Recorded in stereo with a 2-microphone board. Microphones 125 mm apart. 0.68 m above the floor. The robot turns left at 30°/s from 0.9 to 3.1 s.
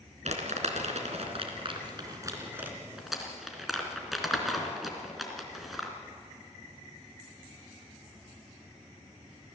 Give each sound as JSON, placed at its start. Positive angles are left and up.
{"t": 0.2, "sound": "crumpling", "side_deg": -70, "distance_m": 3.0}